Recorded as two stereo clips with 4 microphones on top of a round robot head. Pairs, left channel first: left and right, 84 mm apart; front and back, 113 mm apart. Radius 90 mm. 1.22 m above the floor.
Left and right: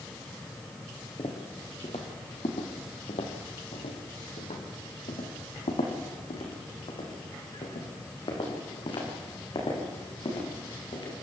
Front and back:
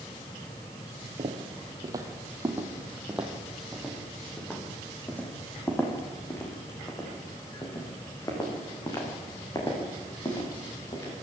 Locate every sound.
1.2 s footsteps: 140° left, 2.5 m; by 11.1 s 55° left, 8 m